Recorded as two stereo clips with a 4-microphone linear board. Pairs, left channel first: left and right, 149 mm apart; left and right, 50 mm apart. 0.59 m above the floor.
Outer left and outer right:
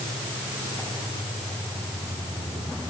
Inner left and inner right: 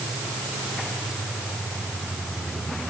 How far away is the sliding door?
No sliding door in this recording.